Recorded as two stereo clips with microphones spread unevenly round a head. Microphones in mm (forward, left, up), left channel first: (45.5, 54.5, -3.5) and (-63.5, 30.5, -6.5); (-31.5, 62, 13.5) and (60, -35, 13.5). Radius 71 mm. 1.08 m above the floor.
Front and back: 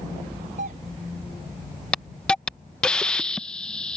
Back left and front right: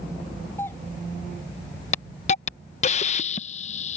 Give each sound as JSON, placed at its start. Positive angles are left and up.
{"t": 0.6, "sound": "a doorbell", "azimuth_deg": -155}
{"t": 1.9, "sound": "a hiss", "azimuth_deg": 95}